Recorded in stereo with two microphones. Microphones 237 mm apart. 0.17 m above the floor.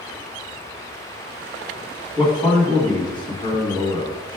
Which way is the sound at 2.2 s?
20° left (ahead or behind).